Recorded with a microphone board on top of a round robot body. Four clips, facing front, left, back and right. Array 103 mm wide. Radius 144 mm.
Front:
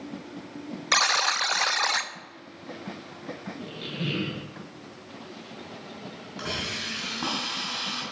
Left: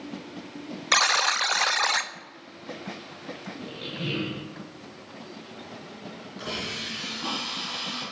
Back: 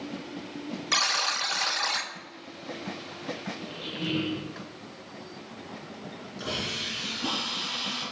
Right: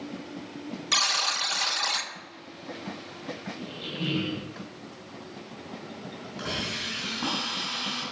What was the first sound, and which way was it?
A buzzer, 60° left.